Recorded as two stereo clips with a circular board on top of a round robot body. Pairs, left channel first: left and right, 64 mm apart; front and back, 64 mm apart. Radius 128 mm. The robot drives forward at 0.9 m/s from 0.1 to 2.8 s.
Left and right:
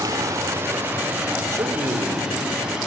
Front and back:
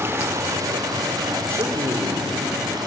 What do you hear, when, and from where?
0.0 s running water: 125° right, 0.9 m; by 2.9 s 165° right, 3 m
1.5 s a man speaking: 135° right, 3 m; by 2.3 s 140° right, 3.5 m